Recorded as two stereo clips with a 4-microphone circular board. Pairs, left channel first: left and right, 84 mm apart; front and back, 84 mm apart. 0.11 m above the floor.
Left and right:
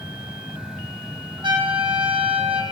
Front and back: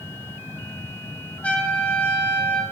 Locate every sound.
1.4 s a trumpet: 75° right, 5.5 m